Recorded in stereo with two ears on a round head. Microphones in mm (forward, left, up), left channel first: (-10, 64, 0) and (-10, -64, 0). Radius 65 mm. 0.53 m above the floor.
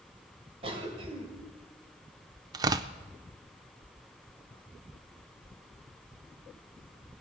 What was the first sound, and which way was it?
A cough, 40° right (ahead or behind).